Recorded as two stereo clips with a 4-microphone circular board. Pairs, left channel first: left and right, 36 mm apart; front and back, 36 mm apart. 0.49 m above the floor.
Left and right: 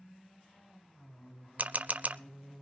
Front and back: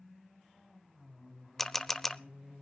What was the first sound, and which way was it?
A camera shutter, 80° right.